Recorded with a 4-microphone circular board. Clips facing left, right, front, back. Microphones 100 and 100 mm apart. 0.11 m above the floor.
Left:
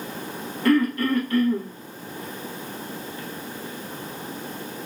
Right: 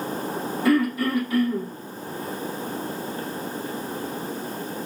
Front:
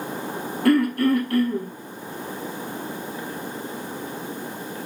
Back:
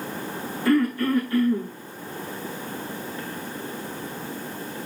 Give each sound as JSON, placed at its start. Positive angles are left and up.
{"t": 0.7, "sound": "throat clearing", "azimuth_deg": -5, "distance_m": 3.5}